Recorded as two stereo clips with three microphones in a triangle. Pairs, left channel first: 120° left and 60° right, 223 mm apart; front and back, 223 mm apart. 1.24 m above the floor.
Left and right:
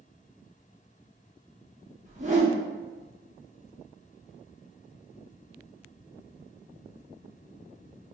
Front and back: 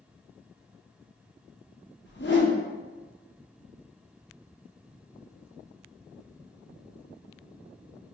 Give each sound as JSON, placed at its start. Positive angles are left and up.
{"t": 2.0, "sound": "a whoosh", "azimuth_deg": -15, "distance_m": 0.7}